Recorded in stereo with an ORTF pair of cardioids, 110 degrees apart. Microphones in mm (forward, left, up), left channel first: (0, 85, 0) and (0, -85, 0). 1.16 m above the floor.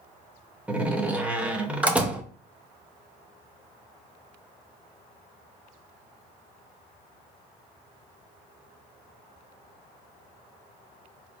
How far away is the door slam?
About 0.6 m.